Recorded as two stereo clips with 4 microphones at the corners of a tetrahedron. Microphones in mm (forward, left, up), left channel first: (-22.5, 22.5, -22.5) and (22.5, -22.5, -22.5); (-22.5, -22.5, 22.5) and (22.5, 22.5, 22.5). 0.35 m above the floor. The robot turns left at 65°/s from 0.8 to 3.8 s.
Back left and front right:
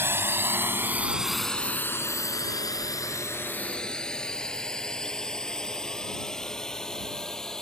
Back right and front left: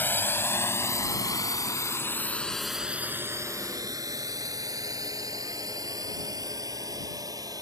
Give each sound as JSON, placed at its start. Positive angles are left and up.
{"t": 0.0, "sound": "a drone", "azimuth_deg": -85}